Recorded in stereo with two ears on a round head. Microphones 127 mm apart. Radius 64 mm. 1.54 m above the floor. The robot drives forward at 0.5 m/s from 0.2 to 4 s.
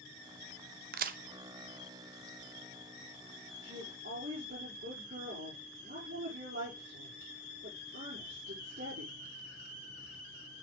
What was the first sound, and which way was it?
A crack, 75° right (ahead or behind).